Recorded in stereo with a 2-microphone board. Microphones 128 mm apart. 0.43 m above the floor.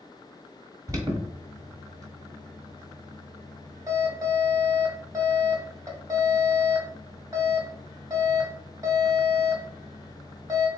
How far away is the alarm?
About 1.5 m.